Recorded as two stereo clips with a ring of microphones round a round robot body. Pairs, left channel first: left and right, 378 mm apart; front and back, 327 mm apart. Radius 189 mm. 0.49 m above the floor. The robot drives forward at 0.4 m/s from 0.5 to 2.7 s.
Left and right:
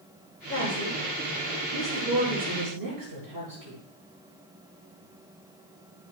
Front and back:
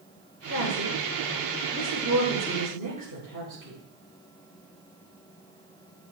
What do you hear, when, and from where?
0.5 s a woman speaking: 125° right, 6.5 m; by 3.8 s 130° right, 7 m